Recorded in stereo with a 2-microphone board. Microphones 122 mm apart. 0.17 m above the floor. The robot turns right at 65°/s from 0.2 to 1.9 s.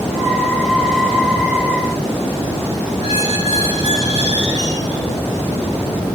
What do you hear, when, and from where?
3.0 s a squeak: 35° right (ahead or behind), 6.5 m